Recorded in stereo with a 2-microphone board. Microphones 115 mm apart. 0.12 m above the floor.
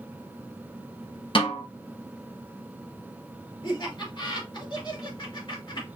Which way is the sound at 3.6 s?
45° left (ahead or behind).